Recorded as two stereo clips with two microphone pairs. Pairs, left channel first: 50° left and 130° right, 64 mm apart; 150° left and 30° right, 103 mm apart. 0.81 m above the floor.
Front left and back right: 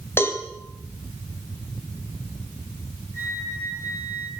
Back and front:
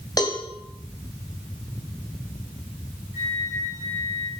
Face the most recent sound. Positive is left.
turn(degrees=-90)